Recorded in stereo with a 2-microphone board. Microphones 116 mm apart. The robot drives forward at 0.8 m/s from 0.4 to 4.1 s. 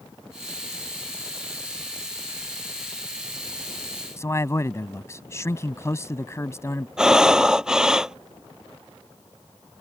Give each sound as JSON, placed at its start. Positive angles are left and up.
{"t": 4.2, "sound": "a man speaking", "side_deg": 25}
{"t": 7.0, "sound": "breathing", "side_deg": -5}